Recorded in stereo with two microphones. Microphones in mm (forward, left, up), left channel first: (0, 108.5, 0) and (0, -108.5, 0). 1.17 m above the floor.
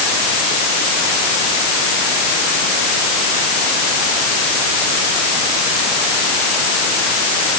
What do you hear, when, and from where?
Only background noise.